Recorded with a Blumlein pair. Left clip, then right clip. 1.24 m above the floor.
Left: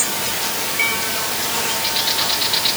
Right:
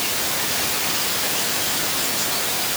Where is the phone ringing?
I don't hear a phone ringing.